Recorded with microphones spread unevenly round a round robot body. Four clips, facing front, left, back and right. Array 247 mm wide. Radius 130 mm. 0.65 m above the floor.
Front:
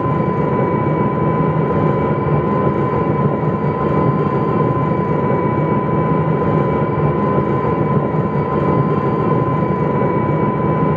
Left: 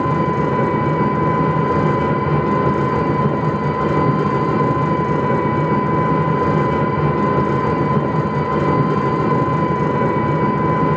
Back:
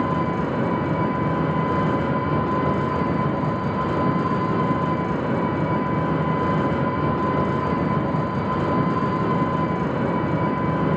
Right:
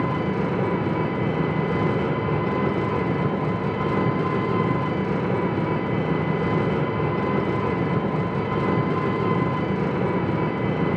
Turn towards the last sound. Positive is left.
turn(degrees=20)